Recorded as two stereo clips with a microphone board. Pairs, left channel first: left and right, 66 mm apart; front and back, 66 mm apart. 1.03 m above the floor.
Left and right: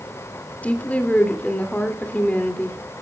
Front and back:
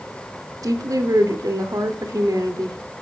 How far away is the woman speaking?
About 2.5 m.